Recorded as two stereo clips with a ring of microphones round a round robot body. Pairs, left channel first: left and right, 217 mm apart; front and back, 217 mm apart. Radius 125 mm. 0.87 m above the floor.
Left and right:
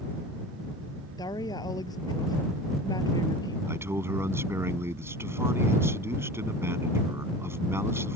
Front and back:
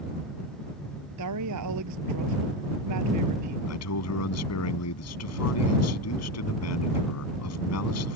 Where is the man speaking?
10° right.